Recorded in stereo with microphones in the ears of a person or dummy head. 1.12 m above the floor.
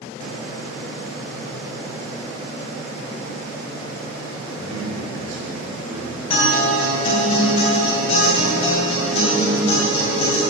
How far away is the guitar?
About 2 m.